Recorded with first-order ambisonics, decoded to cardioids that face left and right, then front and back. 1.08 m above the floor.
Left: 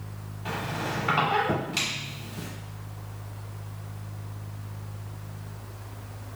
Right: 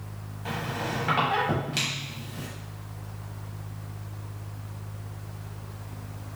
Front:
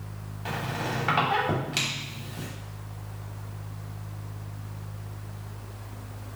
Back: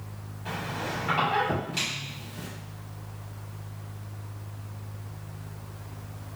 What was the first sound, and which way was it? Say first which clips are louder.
A squeak: even, front 2 dB; 15° right.